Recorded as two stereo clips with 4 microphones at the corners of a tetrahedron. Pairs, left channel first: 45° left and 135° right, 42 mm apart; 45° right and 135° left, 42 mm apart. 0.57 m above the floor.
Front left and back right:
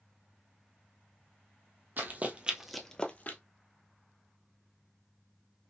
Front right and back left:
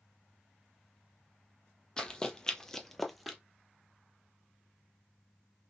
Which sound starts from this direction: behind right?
Running footsteps, at 2.0 s.